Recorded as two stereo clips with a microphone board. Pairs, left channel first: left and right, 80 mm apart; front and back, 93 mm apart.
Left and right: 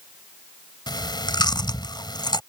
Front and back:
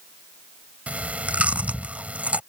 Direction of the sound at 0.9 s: 105° left.